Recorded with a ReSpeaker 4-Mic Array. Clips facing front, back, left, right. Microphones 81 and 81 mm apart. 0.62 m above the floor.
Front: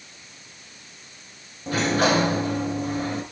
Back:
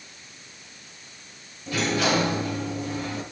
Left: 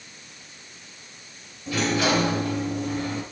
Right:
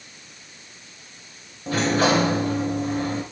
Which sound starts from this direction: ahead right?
A sliding door, at 1.7 s.